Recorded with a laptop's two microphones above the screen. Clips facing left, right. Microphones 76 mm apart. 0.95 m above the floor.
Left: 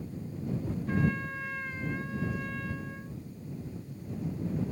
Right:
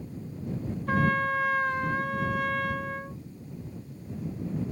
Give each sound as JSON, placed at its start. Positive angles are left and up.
{"t": 0.9, "sound": "a trumpet", "side_deg": -70}